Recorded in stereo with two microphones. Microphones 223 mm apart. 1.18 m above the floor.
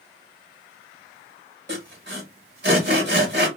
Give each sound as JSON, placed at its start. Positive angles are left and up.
{"t": 1.7, "sound": "sawing", "side_deg": -50, "distance_m": 1.4}